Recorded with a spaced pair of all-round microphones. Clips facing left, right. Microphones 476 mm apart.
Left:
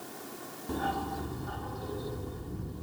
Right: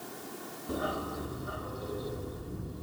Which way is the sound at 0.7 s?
5° left (ahead or behind).